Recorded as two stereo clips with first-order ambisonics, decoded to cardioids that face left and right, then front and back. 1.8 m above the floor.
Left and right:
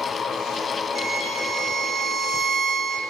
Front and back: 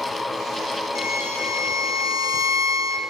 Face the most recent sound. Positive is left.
turn(degrees=-20)